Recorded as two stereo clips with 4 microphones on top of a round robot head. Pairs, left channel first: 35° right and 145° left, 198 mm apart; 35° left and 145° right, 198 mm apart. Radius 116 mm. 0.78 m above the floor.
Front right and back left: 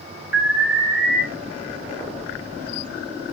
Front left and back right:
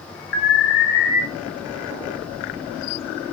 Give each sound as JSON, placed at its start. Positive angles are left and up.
{"t": 0.3, "sound": "an alarm", "azimuth_deg": 5, "distance_m": 2.0}